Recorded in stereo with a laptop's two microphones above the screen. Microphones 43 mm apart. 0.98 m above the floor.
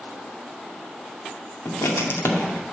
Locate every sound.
1.6 s writing: 85° left, 1.9 m